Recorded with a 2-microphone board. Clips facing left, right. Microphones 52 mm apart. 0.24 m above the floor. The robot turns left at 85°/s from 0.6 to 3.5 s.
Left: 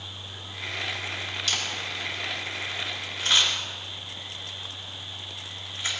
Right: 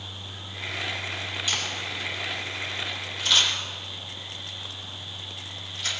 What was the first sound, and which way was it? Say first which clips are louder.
A camera shutter: even; 15° right (ahead or behind).